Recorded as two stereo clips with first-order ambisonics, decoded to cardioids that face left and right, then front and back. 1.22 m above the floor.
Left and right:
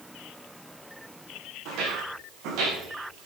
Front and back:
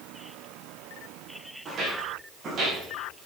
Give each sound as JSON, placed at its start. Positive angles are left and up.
{"t": 1.6, "sound": "footsteps", "azimuth_deg": -115, "distance_m": 4.5}